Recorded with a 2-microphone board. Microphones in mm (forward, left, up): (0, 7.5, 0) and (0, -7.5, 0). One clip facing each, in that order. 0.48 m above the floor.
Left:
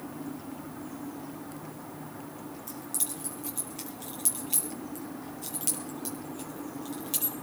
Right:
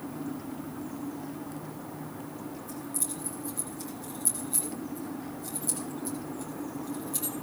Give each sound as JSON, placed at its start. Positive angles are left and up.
{"t": 2.7, "sound": "keys jangling", "side_deg": 80, "distance_m": 7.0}